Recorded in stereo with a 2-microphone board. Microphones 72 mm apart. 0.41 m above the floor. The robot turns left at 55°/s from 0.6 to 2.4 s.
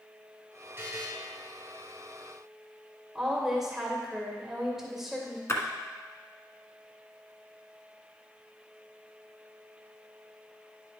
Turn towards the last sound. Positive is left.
turn(degrees=40)  # may be behind; listen again after turning